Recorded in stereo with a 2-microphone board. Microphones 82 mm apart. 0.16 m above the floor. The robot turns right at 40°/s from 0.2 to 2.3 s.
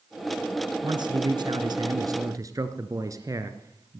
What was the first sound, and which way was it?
A man speaking, 110° right.